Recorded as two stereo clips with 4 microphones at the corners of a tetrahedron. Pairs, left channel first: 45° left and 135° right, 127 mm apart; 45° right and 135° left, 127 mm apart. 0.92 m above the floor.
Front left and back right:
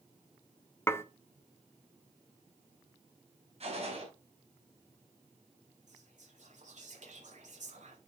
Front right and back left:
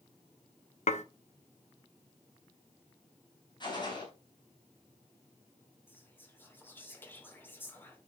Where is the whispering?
120° right, 3 m.